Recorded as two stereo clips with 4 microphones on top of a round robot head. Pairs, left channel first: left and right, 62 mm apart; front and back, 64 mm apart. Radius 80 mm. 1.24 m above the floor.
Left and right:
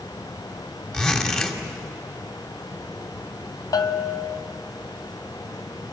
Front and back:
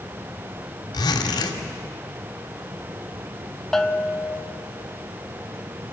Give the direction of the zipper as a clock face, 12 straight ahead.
12 o'clock.